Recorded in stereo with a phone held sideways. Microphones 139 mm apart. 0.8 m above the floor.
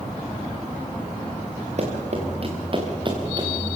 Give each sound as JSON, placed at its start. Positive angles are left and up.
{"t": 1.8, "sound": "running footsteps", "side_deg": -55, "distance_m": 4.5}